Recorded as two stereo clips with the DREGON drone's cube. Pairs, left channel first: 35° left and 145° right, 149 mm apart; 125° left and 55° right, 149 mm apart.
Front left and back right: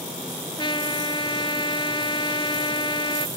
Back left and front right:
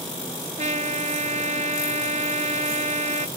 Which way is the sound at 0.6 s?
20° right.